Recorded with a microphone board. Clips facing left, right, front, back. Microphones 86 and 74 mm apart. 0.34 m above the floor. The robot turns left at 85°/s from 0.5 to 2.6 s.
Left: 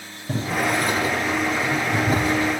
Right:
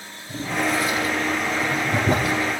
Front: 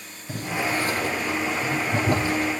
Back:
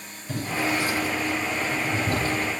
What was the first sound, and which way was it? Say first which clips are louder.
Boiling: left 1 dB, even; 75° left.